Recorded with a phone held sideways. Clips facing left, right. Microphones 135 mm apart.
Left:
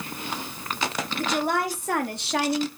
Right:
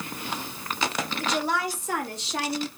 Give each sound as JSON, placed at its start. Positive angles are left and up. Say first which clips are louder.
{"t": 1.2, "sound": "a woman speaking", "louder": "left 3 dB", "side_deg": 55, "distance_m": 3.5}